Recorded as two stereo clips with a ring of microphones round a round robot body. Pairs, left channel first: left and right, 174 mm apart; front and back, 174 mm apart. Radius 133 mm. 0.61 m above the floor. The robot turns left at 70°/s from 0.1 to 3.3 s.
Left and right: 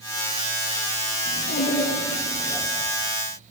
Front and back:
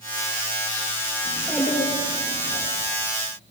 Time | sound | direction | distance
1.2 | a child speaking | 105° left | 9 m